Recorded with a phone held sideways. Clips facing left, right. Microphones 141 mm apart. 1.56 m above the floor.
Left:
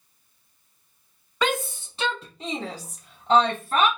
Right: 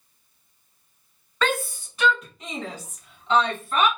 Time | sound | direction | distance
1.4 | a shout | 15° left (ahead or behind) | 0.8 m